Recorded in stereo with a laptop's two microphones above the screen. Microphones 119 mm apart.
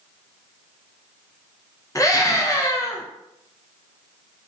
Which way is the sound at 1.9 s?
25° left (ahead or behind).